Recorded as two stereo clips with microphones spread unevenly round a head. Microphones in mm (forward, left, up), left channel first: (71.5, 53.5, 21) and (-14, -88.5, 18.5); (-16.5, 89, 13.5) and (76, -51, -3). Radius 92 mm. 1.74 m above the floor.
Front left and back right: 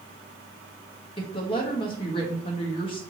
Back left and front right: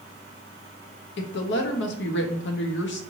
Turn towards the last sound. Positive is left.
turn(degrees=120)